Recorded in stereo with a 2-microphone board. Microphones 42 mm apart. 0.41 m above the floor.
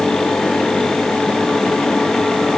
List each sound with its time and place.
Only background noise.